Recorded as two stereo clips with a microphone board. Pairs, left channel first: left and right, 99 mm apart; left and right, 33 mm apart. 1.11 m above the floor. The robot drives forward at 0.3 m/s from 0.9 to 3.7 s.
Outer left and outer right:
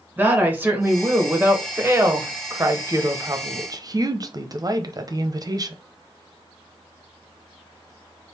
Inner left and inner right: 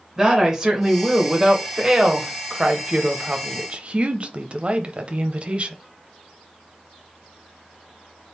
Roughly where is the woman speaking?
Centre.